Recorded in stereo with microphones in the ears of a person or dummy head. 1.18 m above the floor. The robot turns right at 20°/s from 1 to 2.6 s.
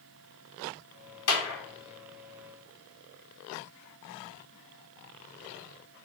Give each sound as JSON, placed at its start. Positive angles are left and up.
{"t": 1.3, "sound": "a clap", "side_deg": 80, "distance_m": 1.3}